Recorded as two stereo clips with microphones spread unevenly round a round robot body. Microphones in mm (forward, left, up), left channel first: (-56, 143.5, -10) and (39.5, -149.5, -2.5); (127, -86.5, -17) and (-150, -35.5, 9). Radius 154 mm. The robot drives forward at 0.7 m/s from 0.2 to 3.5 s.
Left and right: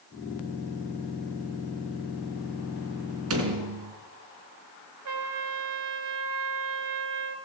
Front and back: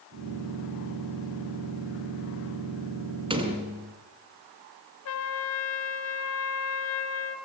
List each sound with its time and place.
3.3 s a door slam: 120° right, 4 m
5.0 s a trumpet: 40° right, 2.5 m